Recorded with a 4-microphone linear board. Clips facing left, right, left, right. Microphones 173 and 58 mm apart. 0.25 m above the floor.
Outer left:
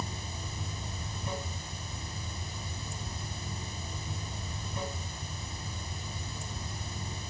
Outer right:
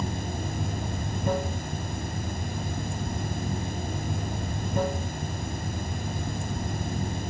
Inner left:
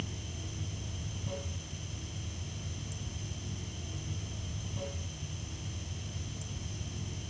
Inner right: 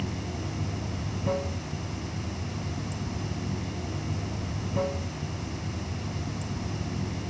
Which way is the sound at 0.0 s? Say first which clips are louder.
Outer right 9 dB, inner right 9 dB; 60° right (ahead or behind).